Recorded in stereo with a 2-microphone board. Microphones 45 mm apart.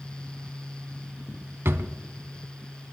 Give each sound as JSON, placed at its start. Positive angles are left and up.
{"t": 1.6, "sound": "a drawer", "side_deg": -65, "distance_m": 0.8}